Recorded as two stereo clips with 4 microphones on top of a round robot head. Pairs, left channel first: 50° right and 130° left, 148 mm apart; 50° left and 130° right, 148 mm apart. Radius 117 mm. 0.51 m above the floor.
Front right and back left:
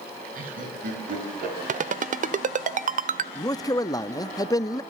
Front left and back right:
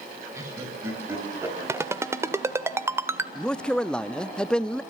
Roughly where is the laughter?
Behind.